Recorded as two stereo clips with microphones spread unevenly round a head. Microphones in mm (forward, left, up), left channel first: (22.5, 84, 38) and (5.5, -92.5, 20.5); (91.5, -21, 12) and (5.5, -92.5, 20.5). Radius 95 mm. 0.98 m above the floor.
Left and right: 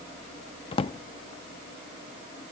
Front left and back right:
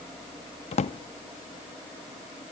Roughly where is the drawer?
Ahead left.